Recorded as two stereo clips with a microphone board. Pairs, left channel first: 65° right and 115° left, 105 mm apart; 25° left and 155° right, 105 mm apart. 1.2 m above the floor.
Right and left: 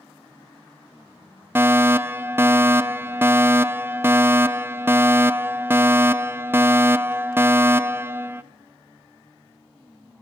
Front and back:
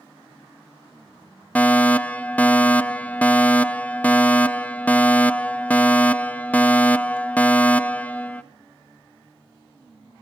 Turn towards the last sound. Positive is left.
turn(degrees=80)